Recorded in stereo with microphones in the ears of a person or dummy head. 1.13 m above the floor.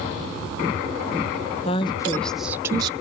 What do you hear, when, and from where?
1.6 s a woman speaking: 30° left (ahead or behind), 0.9 m; by 2.9 s 25° right (ahead or behind), 0.8 m